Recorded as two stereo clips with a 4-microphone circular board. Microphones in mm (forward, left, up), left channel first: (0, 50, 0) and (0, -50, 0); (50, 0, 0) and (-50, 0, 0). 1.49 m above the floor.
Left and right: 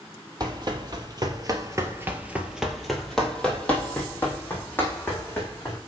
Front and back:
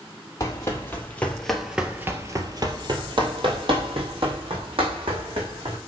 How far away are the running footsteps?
About 2.5 m.